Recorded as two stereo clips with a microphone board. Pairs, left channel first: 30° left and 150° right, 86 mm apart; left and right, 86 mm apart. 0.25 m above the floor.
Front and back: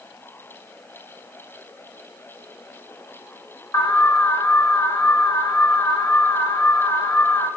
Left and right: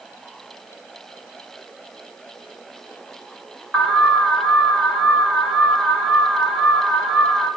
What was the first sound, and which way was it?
An alarm, 5° left.